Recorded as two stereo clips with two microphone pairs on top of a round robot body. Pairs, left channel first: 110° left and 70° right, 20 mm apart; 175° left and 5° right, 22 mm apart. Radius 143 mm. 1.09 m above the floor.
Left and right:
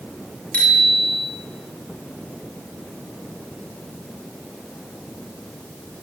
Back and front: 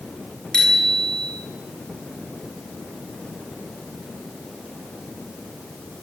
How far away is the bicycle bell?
About 7.5 m.